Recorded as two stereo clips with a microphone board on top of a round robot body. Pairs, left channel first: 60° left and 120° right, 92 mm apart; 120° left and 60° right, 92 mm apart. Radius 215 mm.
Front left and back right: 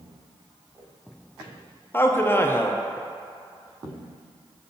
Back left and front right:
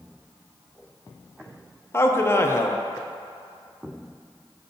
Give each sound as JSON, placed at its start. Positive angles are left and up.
{"t": 1.9, "sound": "a man speaking", "azimuth_deg": 95, "distance_m": 0.6}